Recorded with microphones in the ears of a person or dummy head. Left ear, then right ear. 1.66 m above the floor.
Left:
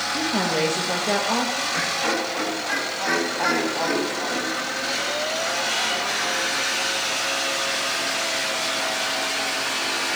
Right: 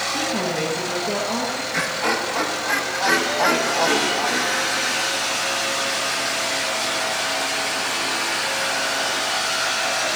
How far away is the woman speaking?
About 2.5 m.